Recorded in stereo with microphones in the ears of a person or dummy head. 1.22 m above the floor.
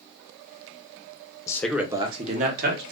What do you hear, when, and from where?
1.5 s a man speaking: 20° left (ahead or behind), 0.5 m; by 2.8 s 55° right (ahead or behind), 1.0 m